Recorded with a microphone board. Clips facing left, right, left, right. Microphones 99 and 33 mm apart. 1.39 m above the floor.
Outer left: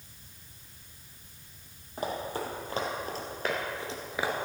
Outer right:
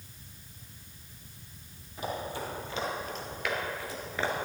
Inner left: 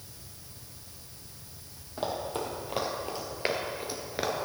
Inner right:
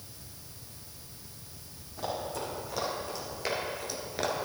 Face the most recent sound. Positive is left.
turn(degrees=5)  # may be behind; listen again after turning